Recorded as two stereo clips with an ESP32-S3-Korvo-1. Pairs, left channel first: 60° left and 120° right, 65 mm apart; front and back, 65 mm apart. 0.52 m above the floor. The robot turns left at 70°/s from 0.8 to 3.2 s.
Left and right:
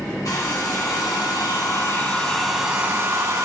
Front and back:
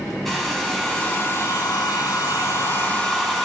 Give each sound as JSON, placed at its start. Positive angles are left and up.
{"t": 0.2, "sound": "a hair dryer", "azimuth_deg": 90, "distance_m": 2.5}